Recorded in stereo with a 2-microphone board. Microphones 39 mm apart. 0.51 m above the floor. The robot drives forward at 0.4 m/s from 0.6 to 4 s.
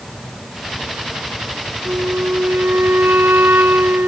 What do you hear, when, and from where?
1.9 s a flute: 85° right; by 4.1 s 75° right (ahead or behind)